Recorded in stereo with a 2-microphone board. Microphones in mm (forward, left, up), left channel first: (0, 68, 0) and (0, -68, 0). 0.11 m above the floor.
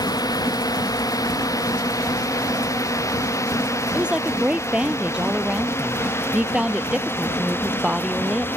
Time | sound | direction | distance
0.0 | a drone | 30° left (ahead or behind) | ?
3.9 | a woman speaking | 5° right (ahead or behind) | ?